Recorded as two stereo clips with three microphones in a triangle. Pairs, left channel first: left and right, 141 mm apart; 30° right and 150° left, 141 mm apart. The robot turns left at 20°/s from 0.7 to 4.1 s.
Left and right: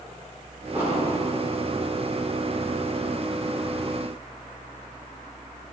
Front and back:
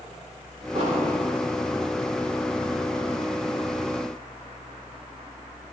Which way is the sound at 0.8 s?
165° right.